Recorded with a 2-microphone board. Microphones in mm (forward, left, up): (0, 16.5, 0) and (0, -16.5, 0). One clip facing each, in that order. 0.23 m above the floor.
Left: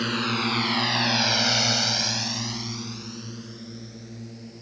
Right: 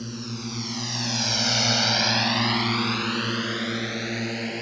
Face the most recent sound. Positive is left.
turn(degrees=-75)  # may be behind; listen again after turning